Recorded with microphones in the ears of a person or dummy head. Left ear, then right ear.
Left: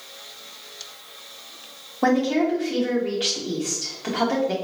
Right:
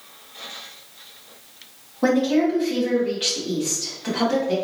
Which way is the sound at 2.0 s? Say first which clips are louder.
Right 1 dB; 25° left (ahead or behind).